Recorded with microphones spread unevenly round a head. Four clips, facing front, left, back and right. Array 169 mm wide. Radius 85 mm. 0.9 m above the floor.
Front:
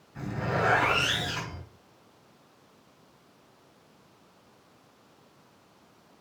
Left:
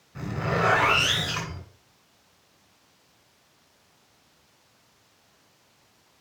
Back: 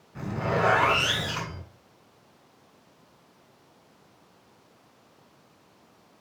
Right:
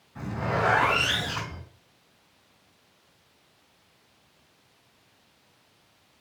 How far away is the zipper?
About 3 m.